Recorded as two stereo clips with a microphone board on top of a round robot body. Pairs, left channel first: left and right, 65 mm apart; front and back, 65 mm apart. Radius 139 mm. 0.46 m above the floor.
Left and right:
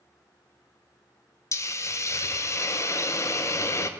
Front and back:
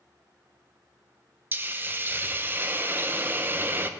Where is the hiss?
125° left, 0.7 m.